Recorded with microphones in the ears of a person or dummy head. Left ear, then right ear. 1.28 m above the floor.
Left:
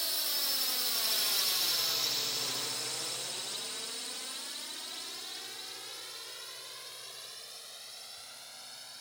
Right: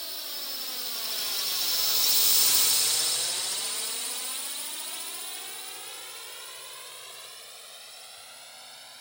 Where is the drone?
10° left (ahead or behind); by 9.0 s 25° right (ahead or behind).